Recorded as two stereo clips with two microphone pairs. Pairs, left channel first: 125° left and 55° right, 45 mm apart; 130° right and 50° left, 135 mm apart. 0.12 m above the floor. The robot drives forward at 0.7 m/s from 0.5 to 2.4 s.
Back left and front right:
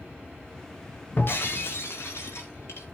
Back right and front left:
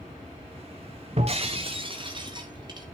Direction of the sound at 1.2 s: 90° left.